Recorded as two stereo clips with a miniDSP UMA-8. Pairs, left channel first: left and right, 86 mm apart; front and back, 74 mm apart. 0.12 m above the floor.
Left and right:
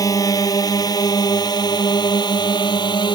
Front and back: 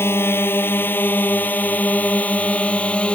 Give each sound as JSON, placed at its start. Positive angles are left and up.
{"t": 0.0, "sound": "a drone", "azimuth_deg": 50}